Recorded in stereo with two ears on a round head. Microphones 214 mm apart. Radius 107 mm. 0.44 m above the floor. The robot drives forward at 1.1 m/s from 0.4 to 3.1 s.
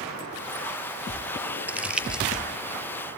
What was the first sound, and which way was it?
Crumpling, 5° right (ahead or behind).